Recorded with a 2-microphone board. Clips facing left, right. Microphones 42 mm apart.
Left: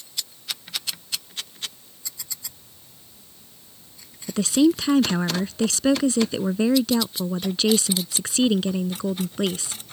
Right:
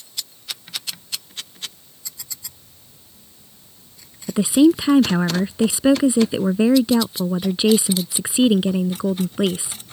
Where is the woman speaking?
15° right (ahead or behind).